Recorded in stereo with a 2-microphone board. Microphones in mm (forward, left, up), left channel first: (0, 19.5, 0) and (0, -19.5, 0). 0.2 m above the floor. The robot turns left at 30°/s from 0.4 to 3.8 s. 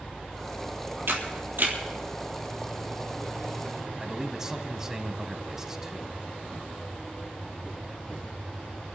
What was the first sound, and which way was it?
A camera shutter, 70° right (ahead or behind).